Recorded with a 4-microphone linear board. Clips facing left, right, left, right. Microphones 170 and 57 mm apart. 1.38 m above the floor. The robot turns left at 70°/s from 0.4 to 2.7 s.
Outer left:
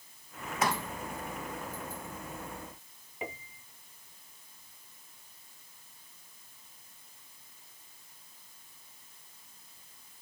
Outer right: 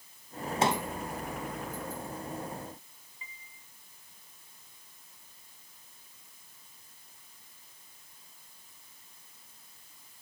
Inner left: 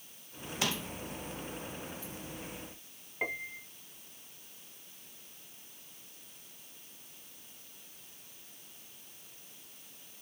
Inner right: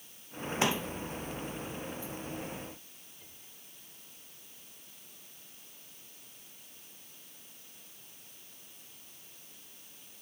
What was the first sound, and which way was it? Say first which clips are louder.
A pop: outer right 3 dB, inner right 5 dB; 30° right (ahead or behind).